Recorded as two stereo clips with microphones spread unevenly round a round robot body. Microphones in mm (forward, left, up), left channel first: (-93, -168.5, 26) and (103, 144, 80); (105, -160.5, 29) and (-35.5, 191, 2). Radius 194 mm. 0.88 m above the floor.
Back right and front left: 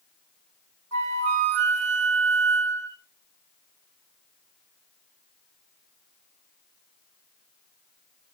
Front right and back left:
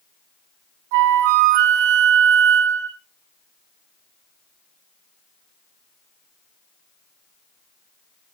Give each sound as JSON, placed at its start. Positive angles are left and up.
{"t": 0.9, "sound": "a flute", "azimuth_deg": 110, "distance_m": 2.0}